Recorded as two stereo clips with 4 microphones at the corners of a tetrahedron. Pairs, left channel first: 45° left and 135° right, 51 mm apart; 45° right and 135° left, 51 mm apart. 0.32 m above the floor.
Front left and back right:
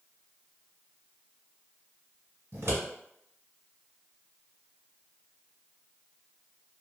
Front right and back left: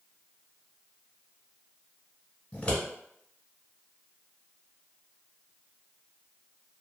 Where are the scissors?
105° right, 1.2 m.